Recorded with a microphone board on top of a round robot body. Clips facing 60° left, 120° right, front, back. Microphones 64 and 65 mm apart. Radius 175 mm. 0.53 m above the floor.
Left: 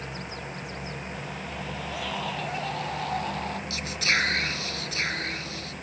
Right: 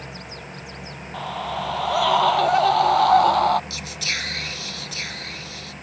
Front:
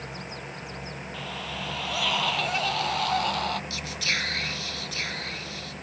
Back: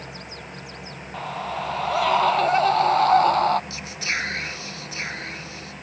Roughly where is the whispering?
Behind left.